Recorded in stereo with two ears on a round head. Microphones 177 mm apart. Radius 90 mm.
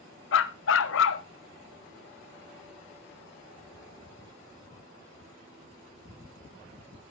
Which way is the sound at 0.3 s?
75° left (ahead or behind).